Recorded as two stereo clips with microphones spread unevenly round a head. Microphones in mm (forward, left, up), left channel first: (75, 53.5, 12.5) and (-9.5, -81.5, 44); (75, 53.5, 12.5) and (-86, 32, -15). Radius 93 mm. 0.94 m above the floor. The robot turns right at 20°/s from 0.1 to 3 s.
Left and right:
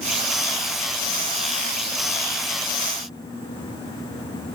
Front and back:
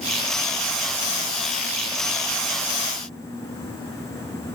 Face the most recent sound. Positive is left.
No sound to turn to.